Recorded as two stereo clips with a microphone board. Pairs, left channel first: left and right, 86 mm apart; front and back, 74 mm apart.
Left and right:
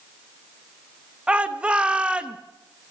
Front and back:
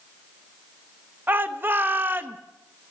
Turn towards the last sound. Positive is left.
turn(degrees=-155)